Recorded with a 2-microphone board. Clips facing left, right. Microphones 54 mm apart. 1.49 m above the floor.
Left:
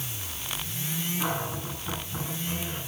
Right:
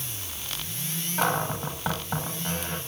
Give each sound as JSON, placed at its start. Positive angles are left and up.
{"t": 1.2, "sound": "a cupboard door", "side_deg": -85, "distance_m": 7.5}